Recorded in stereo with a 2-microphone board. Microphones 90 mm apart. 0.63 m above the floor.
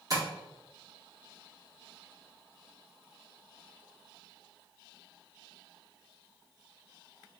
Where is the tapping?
40° right (ahead or behind), 1.6 m.